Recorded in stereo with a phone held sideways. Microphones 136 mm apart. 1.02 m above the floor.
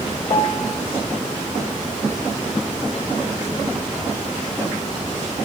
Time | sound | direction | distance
0.3 | a piano | 60° left (ahead or behind) | 2.5 m